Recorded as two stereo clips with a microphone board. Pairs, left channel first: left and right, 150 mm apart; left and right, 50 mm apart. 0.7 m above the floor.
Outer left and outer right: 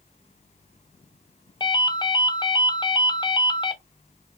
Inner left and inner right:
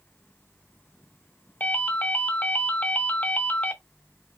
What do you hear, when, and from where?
1.6 s a ringtone: 30° left (ahead or behind), 0.6 m